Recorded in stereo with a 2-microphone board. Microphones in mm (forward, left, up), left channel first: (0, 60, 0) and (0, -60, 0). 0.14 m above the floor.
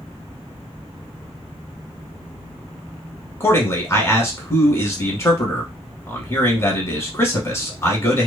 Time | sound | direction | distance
3.4 | a man speaking | 25° left (ahead or behind) | 1.1 m